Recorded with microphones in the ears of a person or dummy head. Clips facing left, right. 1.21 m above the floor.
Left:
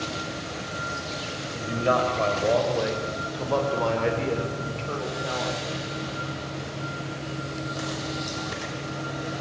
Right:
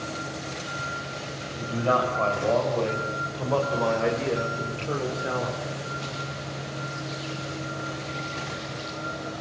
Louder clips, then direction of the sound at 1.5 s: Left 1 dB; 25° left (ahead or behind).